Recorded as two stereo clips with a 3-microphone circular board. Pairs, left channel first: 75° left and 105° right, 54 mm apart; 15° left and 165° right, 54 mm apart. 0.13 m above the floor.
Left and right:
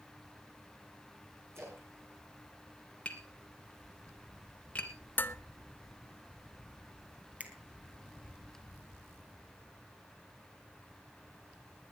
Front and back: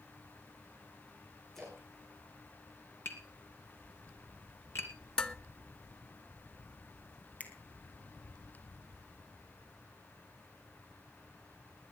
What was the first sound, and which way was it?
A splash, 70° right.